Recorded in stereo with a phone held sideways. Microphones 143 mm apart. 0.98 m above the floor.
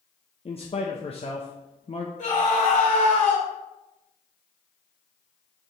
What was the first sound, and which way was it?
A man speaking, 40° left (ahead or behind).